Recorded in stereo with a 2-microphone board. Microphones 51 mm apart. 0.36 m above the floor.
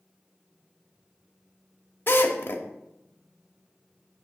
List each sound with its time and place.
2.1 s a drill: 45° left (ahead or behind), 1.0 m